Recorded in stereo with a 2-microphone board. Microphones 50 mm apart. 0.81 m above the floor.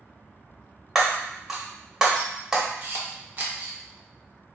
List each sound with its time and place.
0.9 s breaking glass: 10° right (ahead or behind), 0.8 m
2.8 s a camera shutter: 40° right (ahead or behind), 0.7 m